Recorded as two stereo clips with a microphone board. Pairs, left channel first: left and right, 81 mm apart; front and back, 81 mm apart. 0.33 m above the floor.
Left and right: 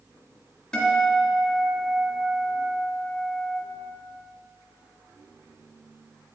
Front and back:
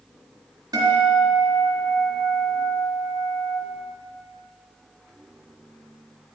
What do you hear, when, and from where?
0.7 s a guitar: 165° left, 2.5 m